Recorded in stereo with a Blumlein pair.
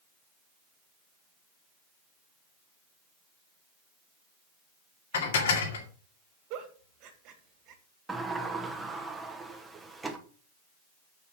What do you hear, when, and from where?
5.1 s dishes clattering: 60° left, 2 m
6.5 s a giggle: 40° right, 3 m
8.1 s a sliding door: 10° right, 1.8 m